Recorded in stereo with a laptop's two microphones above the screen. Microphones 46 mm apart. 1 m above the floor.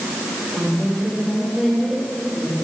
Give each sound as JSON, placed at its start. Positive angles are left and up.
{"t": 0.5, "sound": "a woman speaking", "side_deg": -30, "distance_m": 6.0}